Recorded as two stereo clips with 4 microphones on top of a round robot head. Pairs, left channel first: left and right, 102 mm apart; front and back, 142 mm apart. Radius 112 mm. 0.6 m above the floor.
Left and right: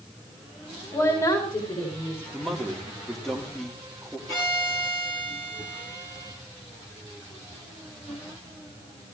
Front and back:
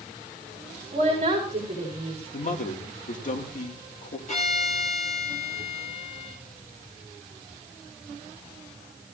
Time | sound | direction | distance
0.9 | a woman speaking | 130° left | 5 m
2.3 | a man speaking | 5° left | 2.0 m
4.3 | a violin | 30° left | 6.5 m